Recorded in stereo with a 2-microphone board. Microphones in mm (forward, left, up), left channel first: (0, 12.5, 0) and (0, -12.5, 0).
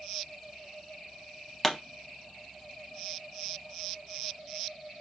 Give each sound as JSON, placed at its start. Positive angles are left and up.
{"t": 1.6, "sound": "a pop", "side_deg": 15, "distance_m": 0.6}